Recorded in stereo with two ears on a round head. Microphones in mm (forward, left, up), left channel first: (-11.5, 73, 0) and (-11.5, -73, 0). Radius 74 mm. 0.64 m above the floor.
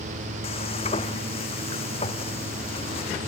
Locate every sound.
0.4 s frying: 35° left (ahead or behind)